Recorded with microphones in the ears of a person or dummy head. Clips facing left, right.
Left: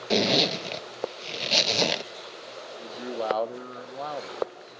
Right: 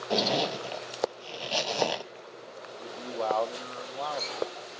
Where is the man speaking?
20° left (ahead or behind), 0.8 m.